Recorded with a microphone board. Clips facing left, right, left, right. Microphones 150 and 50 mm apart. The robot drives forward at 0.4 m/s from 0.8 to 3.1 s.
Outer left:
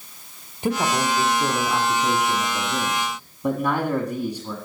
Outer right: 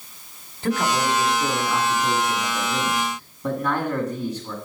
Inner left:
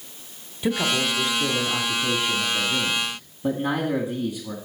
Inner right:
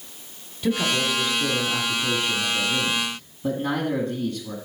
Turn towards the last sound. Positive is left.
turn(degrees=15)  # may be behind; listen again after turning